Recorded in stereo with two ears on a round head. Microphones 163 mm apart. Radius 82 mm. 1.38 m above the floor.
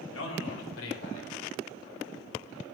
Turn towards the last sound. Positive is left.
turn(degrees=85)